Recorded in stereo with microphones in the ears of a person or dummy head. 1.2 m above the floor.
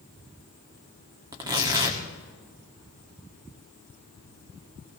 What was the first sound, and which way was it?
Tearing paper, 15° right (ahead or behind).